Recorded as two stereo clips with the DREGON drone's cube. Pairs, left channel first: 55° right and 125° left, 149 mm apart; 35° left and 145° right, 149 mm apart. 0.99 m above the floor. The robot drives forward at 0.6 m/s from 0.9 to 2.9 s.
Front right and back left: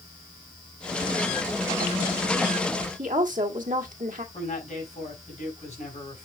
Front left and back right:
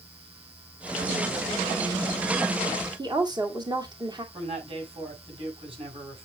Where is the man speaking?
95° right, 5 m.